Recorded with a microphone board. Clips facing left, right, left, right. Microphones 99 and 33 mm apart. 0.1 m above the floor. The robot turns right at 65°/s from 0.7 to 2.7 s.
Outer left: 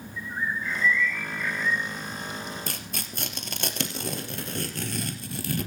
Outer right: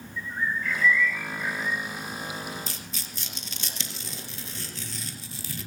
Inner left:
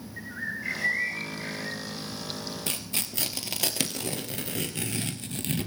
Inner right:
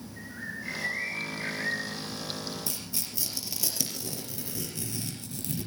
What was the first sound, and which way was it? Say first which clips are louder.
A bird: outer right 1 dB, inner left 5 dB; 155° left.